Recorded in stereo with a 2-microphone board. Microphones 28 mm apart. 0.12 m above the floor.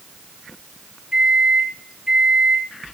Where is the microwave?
40° right (ahead or behind), 5 m.